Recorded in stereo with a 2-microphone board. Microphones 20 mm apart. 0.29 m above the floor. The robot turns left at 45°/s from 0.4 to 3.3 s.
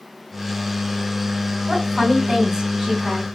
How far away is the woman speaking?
About 2.5 m.